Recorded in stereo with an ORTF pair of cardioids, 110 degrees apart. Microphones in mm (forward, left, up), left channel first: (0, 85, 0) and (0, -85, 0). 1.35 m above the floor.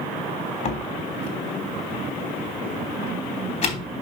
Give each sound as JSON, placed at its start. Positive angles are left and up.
{"t": 0.7, "sound": "a door slam", "azimuth_deg": 40, "distance_m": 3.0}